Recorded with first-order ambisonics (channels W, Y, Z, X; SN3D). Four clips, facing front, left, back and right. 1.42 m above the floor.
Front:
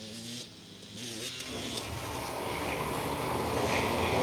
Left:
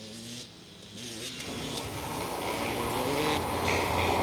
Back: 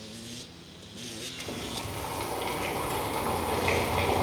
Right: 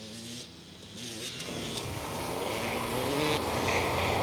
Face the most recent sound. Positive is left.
turn(degrees=170)